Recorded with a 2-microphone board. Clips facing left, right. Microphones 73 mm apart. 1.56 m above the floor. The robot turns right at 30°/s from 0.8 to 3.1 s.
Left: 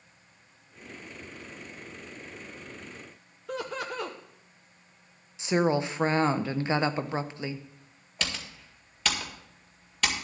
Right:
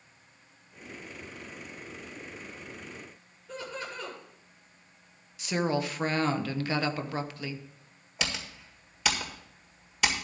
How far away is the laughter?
About 1.0 m.